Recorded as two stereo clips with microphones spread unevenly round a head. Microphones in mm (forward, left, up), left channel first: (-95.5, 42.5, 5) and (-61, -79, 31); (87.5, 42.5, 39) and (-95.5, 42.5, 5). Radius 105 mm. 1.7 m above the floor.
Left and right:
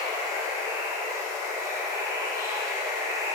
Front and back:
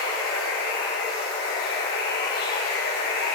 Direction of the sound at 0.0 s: 15° right.